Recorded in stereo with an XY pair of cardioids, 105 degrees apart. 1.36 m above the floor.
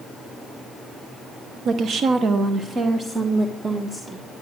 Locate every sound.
1.6 s a woman speaking: 65° right, 0.7 m; by 4.3 s 15° right, 1.7 m